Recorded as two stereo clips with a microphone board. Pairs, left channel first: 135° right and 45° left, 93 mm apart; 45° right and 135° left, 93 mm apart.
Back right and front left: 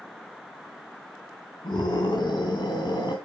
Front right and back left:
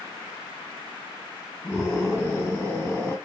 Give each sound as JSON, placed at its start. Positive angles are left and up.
{"t": 1.6, "sound": "a scream", "azimuth_deg": -105, "distance_m": 2.0}